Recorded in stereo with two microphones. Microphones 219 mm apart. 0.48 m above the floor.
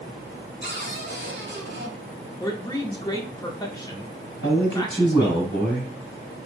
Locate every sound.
0.6 s a cupboard door: 50° right (ahead or behind), 1.4 m
2.4 s a man speaking: 20° left (ahead or behind), 0.7 m
4.4 s a man speaking: 60° left (ahead or behind), 1.6 m